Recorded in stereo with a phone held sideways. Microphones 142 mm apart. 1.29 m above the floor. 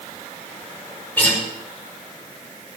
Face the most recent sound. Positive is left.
turn(degrees=15)  # may be behind; listen again after turning